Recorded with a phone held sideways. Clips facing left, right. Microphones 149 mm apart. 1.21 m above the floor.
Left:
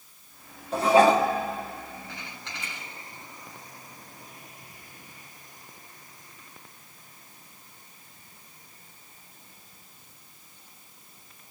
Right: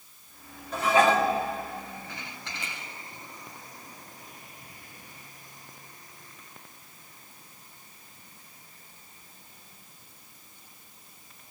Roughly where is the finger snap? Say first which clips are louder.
Right 2 dB; right.